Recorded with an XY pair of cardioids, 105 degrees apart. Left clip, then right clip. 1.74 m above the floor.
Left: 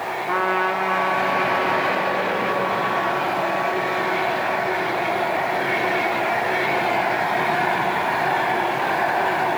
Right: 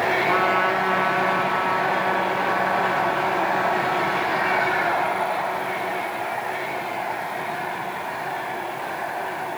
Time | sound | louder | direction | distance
0.3 | a trumpet | left 3 dB | 10° left | 4 m